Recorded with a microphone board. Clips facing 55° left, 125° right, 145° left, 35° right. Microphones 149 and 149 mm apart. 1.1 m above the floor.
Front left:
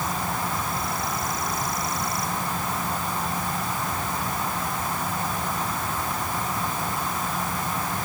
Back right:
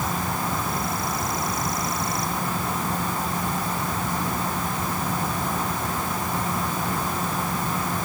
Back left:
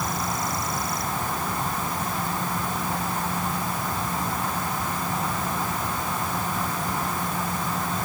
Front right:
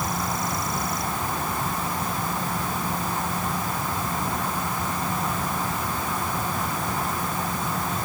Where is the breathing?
No breathing in this recording.